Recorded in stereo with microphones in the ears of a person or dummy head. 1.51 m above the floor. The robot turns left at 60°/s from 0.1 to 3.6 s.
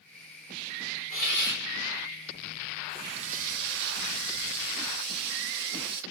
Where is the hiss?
140° left, 4 m; by 1.6 s 110° left, 4 m.